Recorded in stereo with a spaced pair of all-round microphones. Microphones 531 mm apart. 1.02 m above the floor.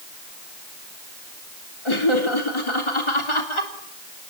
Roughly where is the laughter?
Left.